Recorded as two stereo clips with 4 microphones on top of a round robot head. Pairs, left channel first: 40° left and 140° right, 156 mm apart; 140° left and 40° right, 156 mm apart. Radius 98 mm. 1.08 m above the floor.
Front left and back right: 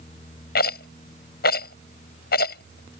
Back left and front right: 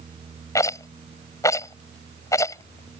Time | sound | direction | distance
0.6 | a rattle | 70° left | ?